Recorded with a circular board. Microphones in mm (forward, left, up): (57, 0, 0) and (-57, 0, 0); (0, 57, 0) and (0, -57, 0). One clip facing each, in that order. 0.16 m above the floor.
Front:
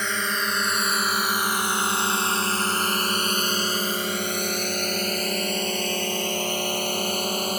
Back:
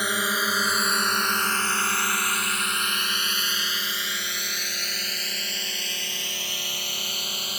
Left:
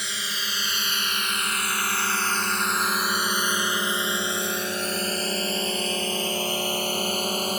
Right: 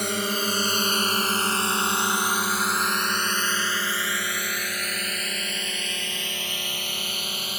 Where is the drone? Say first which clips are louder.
Back 1 dB, right 9 dB; 105° right; by 7.6 s 45° left.